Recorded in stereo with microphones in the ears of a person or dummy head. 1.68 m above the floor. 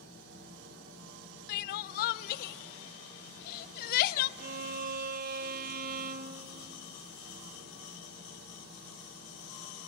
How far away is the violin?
About 1.2 m.